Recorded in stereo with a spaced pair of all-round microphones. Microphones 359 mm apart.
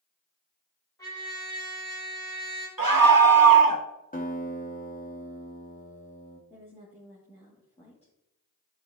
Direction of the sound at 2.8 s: 70° right (ahead or behind).